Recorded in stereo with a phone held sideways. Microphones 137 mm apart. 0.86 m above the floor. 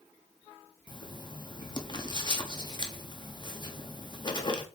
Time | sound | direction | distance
0.9 | writing | 35° left (ahead or behind) | 1.3 m